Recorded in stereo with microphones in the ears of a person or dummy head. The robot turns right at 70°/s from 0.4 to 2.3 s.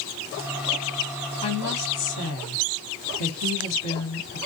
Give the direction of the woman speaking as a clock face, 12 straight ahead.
11 o'clock.